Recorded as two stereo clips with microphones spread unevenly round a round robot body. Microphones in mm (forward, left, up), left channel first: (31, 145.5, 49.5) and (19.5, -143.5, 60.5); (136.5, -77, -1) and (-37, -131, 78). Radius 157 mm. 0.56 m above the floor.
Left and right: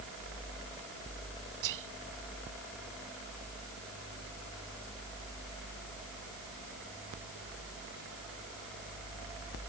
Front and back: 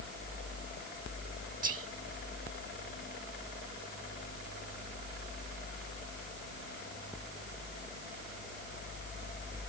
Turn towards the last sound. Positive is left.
turn(degrees=-115)